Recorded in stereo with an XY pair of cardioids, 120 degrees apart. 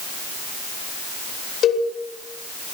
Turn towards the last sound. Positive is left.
turn(degrees=55)